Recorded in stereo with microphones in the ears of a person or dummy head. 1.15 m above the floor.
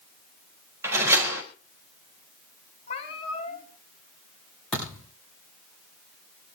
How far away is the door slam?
About 4 m.